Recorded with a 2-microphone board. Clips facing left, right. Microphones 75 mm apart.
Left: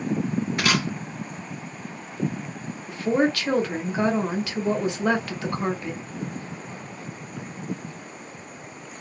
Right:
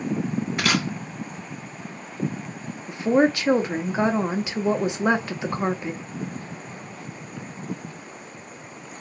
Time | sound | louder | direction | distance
0.6 | a camera shutter | right 1 dB | centre (ahead or behind) | 1.7 m
2.9 | a woman speaking | right 3 dB | 20° right (ahead or behind) | 0.7 m